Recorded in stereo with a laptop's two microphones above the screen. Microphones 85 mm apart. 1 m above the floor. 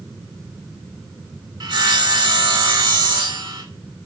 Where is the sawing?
60° right (ahead or behind), 1.2 m.